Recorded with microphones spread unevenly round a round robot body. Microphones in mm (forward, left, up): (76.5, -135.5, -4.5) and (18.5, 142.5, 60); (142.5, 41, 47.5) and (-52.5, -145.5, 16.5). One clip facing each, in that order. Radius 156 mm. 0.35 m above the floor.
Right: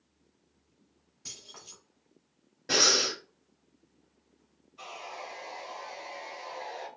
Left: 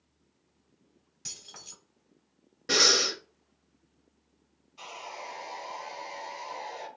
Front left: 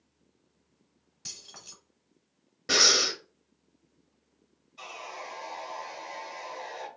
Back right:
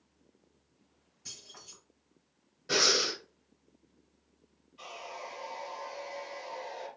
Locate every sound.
1.2 s keys jangling: 60° left, 1.8 m
2.7 s breathing: 35° left, 1.1 m
4.8 s sawing: 65° left, 3 m